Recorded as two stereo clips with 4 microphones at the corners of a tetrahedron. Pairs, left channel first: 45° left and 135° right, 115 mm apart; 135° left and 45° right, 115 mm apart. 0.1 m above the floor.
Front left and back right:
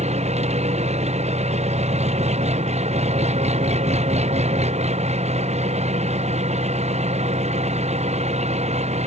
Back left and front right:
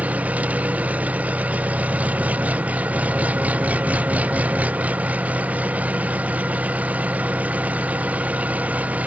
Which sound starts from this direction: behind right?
An engine running, at 0.0 s.